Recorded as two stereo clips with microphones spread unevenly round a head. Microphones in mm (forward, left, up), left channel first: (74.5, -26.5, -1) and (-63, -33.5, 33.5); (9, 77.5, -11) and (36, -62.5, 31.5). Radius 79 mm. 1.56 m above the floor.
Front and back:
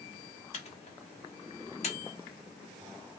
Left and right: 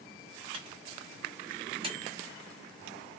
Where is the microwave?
45° right, 0.9 m.